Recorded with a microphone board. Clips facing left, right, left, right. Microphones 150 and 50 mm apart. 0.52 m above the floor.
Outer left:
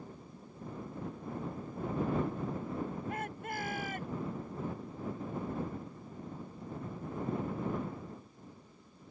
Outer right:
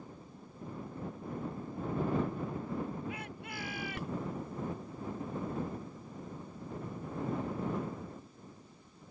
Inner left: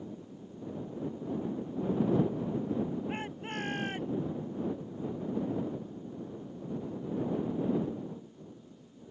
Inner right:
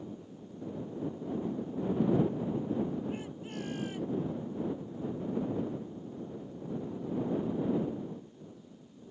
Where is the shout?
50° left (ahead or behind); by 4.2 s 45° left (ahead or behind).